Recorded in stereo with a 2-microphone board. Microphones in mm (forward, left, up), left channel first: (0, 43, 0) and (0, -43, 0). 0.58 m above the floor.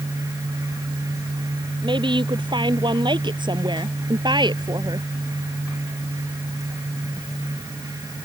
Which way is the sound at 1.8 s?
70° right (ahead or behind).